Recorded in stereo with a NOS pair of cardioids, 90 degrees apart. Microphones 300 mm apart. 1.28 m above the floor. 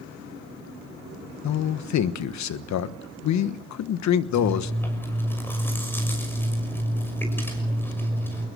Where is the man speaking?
70° left, 1.3 m.